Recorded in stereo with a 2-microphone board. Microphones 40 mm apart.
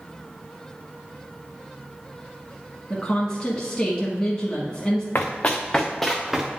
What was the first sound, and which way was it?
A woman speaking, 25° left (ahead or behind).